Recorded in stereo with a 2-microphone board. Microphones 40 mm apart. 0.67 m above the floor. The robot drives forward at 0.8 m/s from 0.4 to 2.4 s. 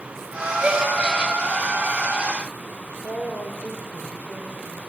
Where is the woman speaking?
65° left (ahead or behind), 3 m.